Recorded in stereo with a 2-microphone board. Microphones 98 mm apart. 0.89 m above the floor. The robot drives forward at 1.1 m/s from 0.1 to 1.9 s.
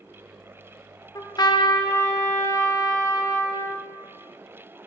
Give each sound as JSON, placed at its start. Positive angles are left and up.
{"t": 1.1, "sound": "a trumpet", "side_deg": 30, "distance_m": 0.6}